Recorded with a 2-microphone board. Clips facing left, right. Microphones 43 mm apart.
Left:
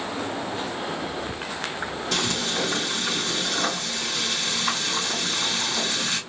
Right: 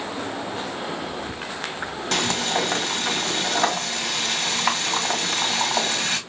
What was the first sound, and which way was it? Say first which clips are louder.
Frying: right 4 dB; 80° right.